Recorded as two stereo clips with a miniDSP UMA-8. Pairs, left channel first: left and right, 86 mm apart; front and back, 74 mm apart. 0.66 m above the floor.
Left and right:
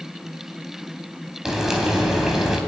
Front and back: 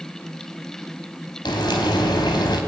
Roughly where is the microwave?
No microwave in this recording.